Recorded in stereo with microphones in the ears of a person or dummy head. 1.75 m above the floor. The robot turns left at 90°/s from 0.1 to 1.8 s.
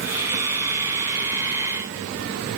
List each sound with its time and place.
Only background noise.